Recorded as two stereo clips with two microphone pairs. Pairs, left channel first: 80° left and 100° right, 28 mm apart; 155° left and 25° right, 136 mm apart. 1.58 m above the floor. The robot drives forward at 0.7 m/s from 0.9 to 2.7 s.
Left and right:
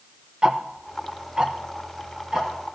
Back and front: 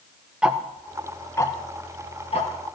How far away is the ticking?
About 0.6 m.